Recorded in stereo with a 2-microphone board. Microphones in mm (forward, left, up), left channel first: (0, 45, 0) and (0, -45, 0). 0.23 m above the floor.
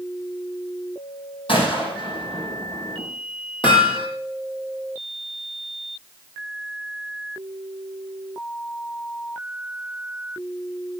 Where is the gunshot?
65° left (ahead or behind), 5.5 m.